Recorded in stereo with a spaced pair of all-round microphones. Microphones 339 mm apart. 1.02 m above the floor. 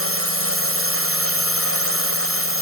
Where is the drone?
40° right (ahead or behind).